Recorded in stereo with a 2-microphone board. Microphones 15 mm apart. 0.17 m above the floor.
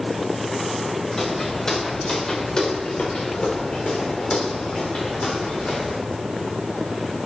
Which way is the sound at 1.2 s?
40° left (ahead or behind).